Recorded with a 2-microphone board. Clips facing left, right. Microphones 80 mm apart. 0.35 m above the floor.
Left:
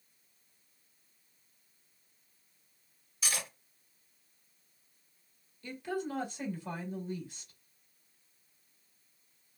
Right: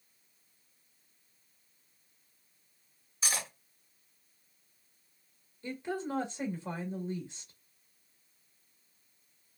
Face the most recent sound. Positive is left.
turn(degrees=-25)  # may be behind; listen again after turning